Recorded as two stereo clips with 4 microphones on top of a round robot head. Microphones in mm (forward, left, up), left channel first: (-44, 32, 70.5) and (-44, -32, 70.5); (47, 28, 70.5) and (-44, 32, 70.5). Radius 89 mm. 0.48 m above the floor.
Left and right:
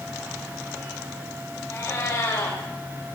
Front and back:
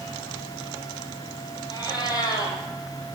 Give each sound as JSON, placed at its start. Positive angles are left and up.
{"t": 1.7, "sound": "a cat meowing", "azimuth_deg": 40, "distance_m": 5.0}